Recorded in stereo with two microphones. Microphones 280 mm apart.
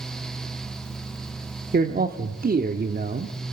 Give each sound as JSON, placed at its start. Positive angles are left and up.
{"t": 1.7, "sound": "a man speaking", "side_deg": -30, "distance_m": 0.9}